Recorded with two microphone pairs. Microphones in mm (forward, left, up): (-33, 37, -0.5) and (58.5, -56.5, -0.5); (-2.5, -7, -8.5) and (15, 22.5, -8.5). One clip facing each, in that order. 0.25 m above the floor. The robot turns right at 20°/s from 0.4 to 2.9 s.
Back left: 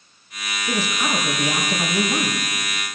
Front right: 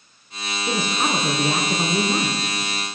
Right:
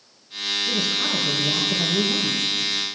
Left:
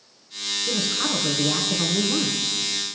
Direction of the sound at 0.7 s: 15° right.